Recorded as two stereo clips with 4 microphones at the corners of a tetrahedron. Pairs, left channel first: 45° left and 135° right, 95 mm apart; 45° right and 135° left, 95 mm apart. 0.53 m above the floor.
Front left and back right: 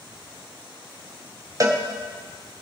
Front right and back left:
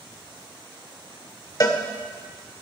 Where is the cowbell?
90° right, 0.9 m.